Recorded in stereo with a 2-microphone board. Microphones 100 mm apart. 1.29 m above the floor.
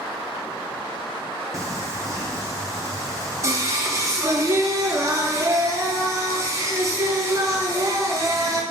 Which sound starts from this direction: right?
Singing, at 1.5 s.